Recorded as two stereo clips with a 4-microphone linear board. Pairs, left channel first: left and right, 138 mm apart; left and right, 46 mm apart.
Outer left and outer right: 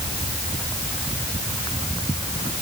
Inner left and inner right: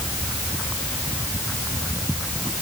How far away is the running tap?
I don't hear a running tap.